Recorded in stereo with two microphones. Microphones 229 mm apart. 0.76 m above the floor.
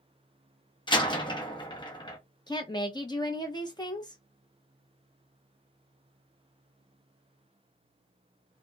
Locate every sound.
0.9 s a door slam: 20° left (ahead or behind), 0.7 m
2.5 s a woman speaking: 20° left (ahead or behind), 0.6 m